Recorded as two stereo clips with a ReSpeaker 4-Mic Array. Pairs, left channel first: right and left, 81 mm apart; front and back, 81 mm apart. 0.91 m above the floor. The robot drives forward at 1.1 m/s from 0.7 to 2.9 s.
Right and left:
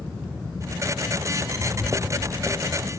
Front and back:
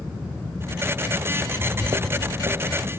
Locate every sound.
1.4 s footsteps: 85° right, 1.0 m; by 2.9 s 170° left, 3 m